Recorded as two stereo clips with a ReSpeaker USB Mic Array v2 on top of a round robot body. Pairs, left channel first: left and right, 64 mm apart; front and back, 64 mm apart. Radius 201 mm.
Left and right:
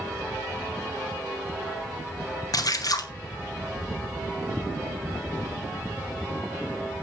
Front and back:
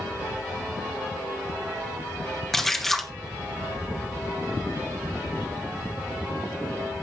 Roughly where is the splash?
Left.